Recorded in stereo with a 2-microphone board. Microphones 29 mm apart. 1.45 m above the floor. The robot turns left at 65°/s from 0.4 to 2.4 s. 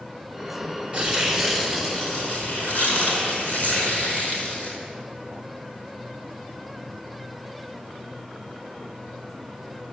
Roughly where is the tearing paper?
Behind right.